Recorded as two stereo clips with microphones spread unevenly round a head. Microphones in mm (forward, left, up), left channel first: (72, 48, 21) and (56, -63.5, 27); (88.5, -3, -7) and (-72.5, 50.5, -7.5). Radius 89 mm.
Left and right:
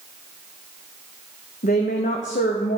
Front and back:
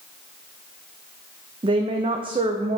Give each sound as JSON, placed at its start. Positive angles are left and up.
{"t": 1.6, "sound": "a woman speaking", "azimuth_deg": 100, "distance_m": 0.5}